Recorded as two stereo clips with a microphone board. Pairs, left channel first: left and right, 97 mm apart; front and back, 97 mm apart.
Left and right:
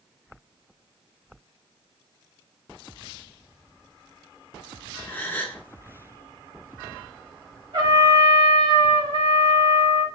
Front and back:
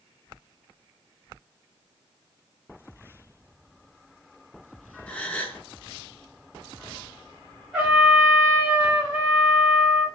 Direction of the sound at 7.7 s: 100° right.